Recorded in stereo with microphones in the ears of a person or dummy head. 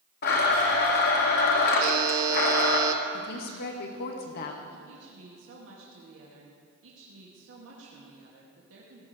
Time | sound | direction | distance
0.2 | a blender | 55° left (ahead or behind) | 1.8 m
1.8 | a buzzer | 50° right (ahead or behind) | 1.4 m
3.1 | a woman speaking | 55° left (ahead or behind) | 1.7 m
4.9 | a woman speaking | 75° right (ahead or behind) | 2.5 m